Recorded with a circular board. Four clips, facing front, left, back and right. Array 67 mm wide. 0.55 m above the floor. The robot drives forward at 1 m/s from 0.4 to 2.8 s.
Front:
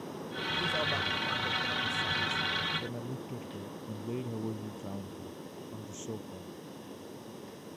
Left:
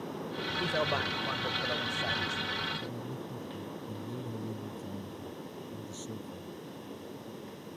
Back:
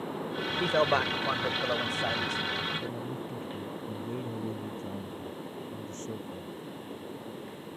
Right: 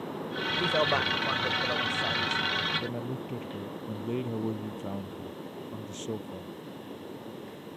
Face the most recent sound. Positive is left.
turn(degrees=-90)